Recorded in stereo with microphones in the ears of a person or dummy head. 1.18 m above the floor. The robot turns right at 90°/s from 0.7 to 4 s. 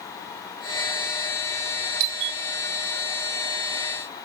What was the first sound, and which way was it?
A doorbell, 75° right (ahead or behind).